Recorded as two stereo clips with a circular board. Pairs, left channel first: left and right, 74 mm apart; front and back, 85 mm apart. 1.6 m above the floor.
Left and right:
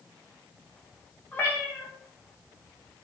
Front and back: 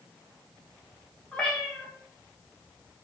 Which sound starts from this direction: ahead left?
A cat meowing, at 1.3 s.